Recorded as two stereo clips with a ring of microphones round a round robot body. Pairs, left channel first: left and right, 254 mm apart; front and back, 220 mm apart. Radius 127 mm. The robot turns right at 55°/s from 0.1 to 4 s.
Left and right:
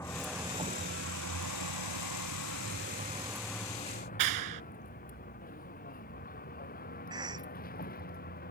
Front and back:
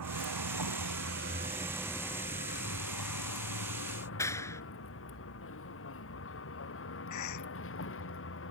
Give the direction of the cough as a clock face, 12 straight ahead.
12 o'clock.